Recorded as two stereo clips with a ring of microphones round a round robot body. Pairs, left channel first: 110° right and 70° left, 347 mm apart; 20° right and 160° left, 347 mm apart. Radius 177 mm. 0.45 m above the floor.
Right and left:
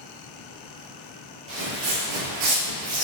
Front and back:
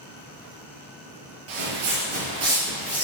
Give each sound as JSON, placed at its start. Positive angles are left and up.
{"t": 1.5, "sound": "footsteps", "azimuth_deg": 135, "distance_m": 0.8}